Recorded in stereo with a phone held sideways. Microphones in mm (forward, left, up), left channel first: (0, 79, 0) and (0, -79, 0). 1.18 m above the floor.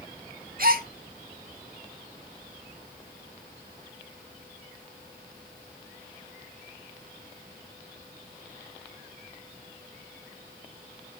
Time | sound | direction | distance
0.6 | a gasp | 65° right (ahead or behind) | 0.9 m